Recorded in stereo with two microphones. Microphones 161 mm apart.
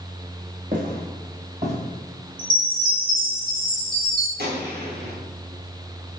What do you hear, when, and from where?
0.7 s footsteps: 55° right (ahead or behind), 2.5 m; by 1.8 s 45° right (ahead or behind), 2 m
2.4 s a chime: 60° right (ahead or behind), 2.5 m
4.4 s a gunshot: 90° right, 1.8 m